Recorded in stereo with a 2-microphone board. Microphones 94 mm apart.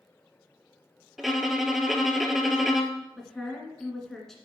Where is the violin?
5° right (ahead or behind), 0.8 m.